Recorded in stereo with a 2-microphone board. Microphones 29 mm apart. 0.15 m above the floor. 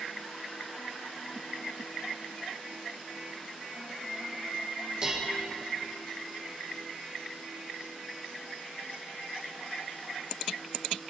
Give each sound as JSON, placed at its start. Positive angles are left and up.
{"t": 5.0, "sound": "dishes clattering", "side_deg": -30, "distance_m": 1.9}